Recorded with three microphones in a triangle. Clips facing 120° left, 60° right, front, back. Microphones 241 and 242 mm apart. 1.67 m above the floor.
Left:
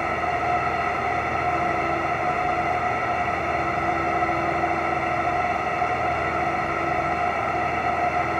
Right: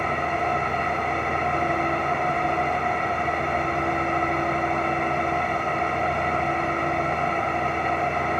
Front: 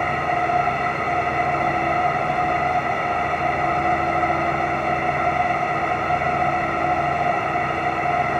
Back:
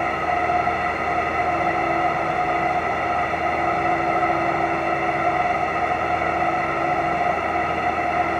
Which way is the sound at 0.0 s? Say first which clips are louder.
Even, even; 110° right.